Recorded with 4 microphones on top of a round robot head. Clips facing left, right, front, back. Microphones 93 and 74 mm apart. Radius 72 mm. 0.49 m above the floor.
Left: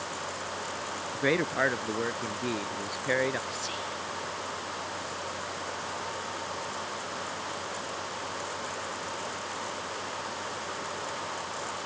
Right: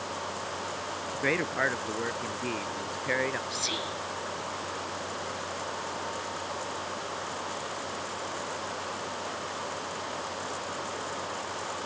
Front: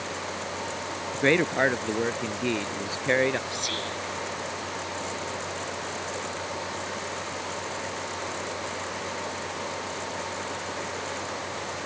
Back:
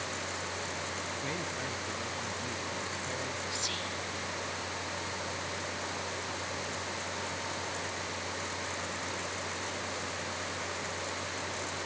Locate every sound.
1.1 s a man speaking: 10° left
3.5 s whispering: 50° right